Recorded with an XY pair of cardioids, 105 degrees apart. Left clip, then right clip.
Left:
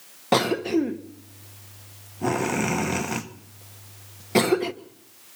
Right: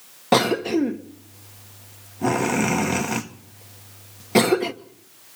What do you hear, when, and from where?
0.3 s a cough: 10° right, 1.5 m